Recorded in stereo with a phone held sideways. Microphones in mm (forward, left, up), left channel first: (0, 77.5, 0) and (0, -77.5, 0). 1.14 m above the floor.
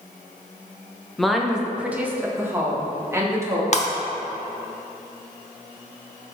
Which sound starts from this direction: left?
Breaking glass, at 3.7 s.